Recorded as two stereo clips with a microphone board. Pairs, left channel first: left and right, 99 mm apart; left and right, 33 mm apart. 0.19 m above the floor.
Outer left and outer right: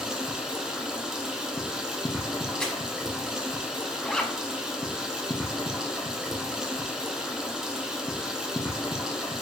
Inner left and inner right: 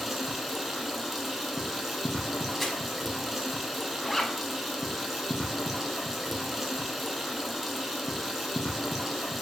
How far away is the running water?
About 0.7 m.